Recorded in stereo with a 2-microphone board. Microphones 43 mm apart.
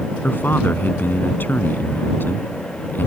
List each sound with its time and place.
0.2 s a man speaking: 50° left (ahead or behind)